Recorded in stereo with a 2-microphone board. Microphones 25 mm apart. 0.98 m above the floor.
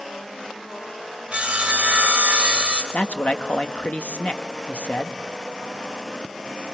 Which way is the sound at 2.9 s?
65° left (ahead or behind).